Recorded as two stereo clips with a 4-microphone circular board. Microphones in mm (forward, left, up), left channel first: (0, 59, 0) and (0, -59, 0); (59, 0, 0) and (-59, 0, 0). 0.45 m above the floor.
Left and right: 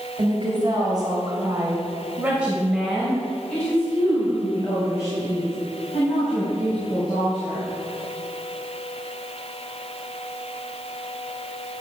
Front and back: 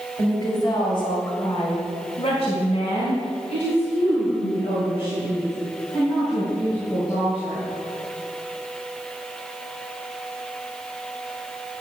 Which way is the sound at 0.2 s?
50° right.